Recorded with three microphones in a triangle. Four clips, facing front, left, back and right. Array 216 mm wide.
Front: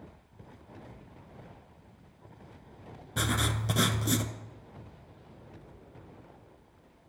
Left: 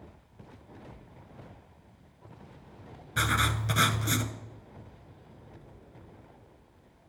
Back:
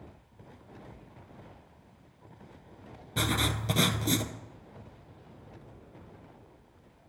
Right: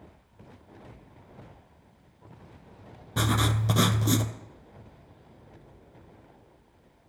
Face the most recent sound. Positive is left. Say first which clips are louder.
# right 1 dB, back 1 dB
turn(degrees=-100)